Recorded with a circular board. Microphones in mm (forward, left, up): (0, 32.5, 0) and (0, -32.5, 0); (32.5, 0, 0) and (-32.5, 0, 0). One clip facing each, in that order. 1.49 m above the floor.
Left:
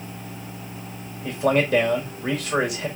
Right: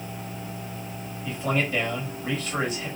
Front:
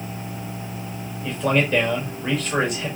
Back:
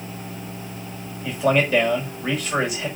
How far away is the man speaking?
About 5 m.